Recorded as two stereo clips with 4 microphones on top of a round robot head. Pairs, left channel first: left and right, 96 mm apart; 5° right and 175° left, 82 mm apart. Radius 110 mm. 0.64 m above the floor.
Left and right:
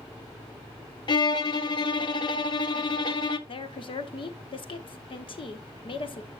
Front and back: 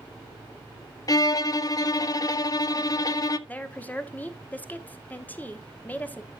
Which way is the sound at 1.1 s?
40° left.